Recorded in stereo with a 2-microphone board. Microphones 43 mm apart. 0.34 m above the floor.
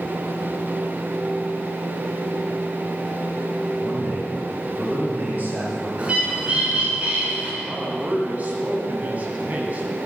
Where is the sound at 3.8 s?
40° right (ahead or behind), 6 m.